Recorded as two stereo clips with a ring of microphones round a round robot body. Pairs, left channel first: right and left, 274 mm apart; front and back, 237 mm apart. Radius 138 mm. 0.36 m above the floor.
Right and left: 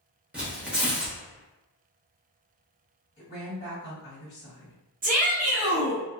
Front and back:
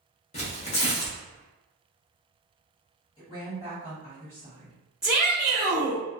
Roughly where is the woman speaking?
Ahead right.